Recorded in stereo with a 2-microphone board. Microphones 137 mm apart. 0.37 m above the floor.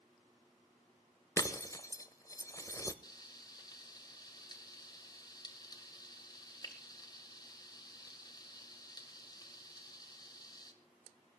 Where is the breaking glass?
25° left (ahead or behind), 0.9 m.